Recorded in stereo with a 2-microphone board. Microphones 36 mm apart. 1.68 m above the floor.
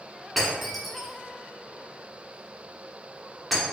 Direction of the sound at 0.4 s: Centre (ahead or behind).